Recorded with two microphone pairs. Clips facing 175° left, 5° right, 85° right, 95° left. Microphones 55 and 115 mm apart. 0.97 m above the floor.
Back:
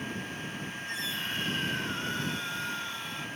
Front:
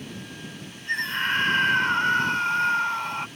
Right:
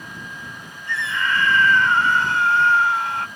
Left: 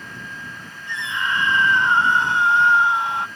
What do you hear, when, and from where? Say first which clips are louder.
0.9 s a scream: front 12 dB, right 2 dB; 25° left